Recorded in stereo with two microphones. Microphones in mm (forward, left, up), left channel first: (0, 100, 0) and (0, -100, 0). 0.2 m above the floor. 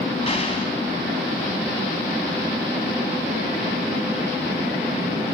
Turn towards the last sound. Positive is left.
turn(degrees=30)  # may be behind; listen again after turning